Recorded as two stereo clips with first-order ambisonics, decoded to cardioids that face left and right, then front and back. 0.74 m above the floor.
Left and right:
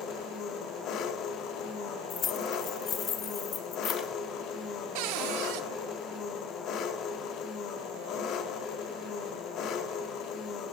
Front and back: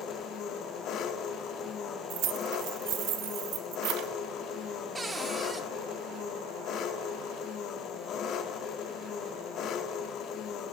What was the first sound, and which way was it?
An engine running, 45° left.